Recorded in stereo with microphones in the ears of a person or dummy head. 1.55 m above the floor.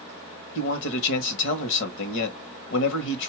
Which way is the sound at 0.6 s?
60° left (ahead or behind).